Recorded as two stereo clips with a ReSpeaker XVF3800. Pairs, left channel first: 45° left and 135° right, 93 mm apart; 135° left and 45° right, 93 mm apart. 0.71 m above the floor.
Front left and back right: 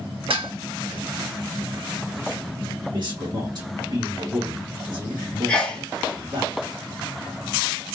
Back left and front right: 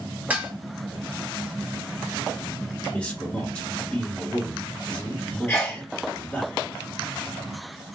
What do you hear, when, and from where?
0.3 s dishes clattering: 120° right, 1.0 m
2.9 s a man speaking: 150° right, 1.5 m
5.5 s a sneeze: 110° left, 0.7 m